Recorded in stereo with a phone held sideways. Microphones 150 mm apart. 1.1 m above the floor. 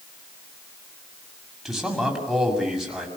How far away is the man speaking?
About 6.5 m.